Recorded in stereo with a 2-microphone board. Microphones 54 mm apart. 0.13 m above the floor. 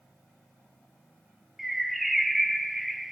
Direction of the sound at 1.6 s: 5° right (ahead or behind).